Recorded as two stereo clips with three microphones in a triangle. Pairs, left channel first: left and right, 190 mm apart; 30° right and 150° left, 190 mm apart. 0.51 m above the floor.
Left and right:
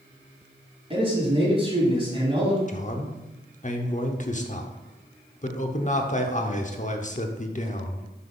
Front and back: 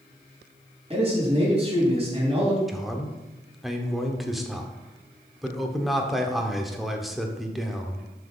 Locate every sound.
0.9 s a man speaking: 150° right, 3 m
2.7 s a man speaking: 60° left, 0.9 m